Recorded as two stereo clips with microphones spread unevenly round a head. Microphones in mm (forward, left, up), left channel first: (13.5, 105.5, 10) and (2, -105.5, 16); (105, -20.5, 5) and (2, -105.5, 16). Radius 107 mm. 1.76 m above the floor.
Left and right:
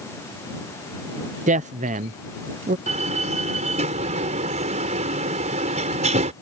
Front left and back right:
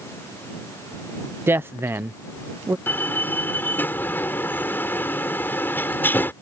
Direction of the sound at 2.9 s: 35° right.